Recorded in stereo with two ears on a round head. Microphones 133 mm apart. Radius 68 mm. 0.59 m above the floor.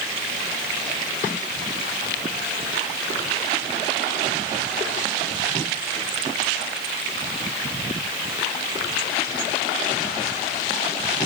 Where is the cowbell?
No cowbell in this recording.